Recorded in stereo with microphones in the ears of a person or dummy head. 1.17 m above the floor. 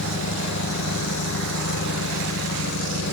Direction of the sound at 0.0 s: 65° left (ahead or behind).